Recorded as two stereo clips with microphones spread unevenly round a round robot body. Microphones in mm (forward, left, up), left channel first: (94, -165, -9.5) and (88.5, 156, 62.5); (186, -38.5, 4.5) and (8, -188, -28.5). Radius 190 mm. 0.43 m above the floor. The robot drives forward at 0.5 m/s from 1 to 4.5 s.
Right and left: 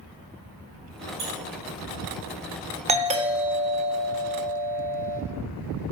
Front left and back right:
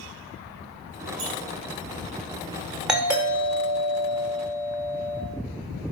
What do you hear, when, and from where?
1.2 s a squeak: 175° right, 2 m; by 1.3 s straight behind, 2 m
2.9 s a doorbell: 165° left, 1.3 m; by 5.2 s 175° left, 1.7 m